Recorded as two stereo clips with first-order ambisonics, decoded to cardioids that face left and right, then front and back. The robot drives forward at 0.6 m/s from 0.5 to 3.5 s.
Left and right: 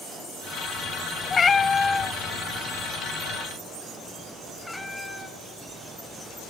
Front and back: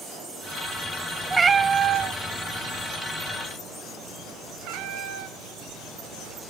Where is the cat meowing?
115° left, 0.7 m; by 6.5 s 165° left, 1.7 m.